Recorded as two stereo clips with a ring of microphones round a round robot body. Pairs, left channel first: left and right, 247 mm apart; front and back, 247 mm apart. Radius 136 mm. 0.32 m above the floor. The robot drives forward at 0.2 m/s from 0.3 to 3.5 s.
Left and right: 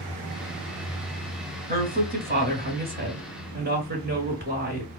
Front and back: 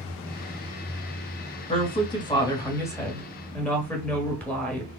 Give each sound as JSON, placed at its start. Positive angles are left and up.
{"t": 1.7, "sound": "a woman speaking", "azimuth_deg": -55, "distance_m": 1.3}